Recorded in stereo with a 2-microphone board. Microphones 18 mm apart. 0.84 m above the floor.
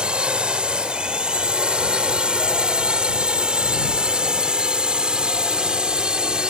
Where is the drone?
55° right (ahead or behind); by 6.5 s 45° right (ahead or behind).